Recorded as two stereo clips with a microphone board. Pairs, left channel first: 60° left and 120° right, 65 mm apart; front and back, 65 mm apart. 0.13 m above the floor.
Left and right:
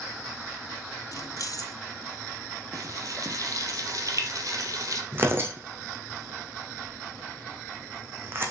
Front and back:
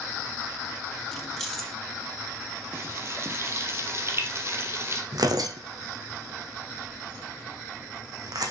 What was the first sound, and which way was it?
Keys jangling, 80° left.